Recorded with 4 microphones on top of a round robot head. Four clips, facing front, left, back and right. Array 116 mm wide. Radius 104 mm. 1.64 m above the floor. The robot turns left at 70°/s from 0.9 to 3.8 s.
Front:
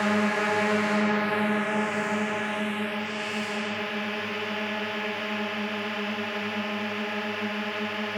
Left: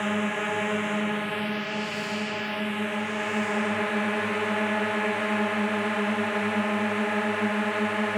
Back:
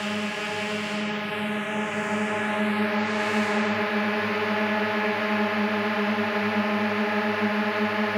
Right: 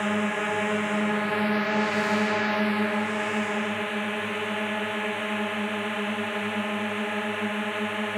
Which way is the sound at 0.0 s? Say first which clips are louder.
Right 1 dB, front 5 dB; 5° right.